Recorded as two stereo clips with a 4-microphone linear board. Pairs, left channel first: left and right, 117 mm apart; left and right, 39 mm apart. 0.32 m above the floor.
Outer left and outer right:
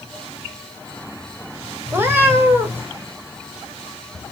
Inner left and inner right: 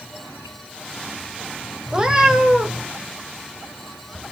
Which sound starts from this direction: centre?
A cat meowing, at 1.9 s.